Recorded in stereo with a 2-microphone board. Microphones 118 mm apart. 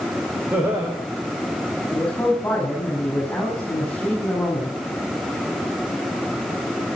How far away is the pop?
No pop in this recording.